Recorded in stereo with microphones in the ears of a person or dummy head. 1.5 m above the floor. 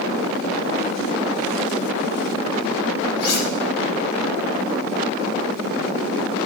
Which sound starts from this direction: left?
Cutlery clinking, at 3.2 s.